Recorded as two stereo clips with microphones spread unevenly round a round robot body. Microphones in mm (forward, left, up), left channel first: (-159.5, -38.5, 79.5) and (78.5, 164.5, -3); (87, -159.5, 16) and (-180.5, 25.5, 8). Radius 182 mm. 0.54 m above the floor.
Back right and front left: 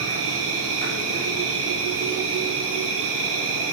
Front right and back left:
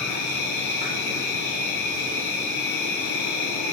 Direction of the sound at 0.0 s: 15° left.